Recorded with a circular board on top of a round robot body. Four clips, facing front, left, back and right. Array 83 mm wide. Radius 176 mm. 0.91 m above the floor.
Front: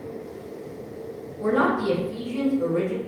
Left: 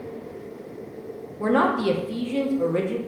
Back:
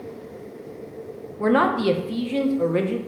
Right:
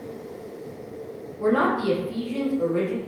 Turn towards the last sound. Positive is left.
turn(degrees=165)